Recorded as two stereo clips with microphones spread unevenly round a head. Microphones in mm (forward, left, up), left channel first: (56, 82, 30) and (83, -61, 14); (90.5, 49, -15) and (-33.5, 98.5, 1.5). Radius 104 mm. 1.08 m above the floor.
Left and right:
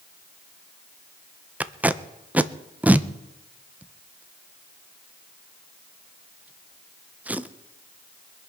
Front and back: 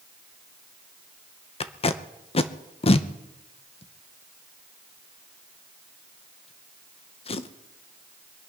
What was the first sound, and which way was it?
Tape being pulled, 5° right.